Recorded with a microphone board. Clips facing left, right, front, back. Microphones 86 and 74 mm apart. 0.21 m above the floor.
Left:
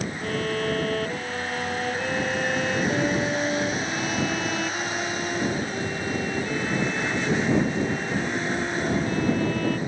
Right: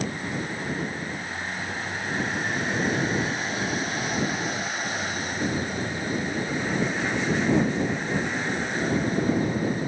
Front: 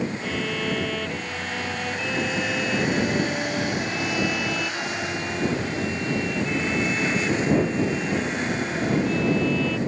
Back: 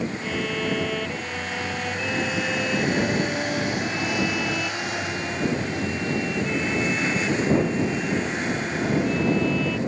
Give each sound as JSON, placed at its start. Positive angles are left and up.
{"t": 0.2, "sound": "a violin", "azimuth_deg": 95}